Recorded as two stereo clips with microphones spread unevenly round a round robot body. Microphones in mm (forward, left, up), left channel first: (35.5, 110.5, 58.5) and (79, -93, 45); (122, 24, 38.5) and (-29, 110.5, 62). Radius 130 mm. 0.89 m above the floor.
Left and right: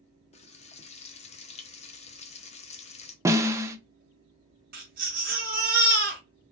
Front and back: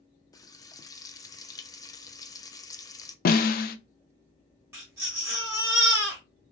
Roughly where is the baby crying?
Behind right.